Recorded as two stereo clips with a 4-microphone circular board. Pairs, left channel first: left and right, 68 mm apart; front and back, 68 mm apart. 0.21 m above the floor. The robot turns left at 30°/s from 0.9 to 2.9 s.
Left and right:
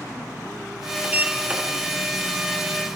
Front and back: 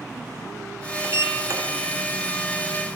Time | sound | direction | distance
1.0 | a sliding door | 145° right | 3 m